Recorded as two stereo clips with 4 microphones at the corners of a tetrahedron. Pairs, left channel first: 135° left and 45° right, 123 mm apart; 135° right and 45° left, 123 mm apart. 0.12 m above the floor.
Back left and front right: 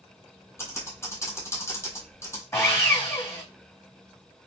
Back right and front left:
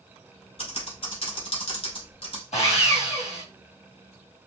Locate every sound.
0.6 s typing on a keyboard: 160° right, 1.5 m
2.5 s sawing: 160° right, 2.5 m